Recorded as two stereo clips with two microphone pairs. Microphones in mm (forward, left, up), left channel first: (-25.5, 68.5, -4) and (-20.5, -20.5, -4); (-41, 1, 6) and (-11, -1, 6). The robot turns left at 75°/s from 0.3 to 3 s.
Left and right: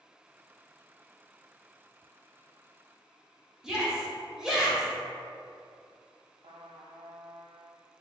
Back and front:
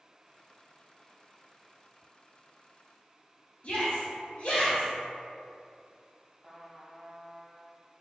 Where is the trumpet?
95° right, 0.5 m.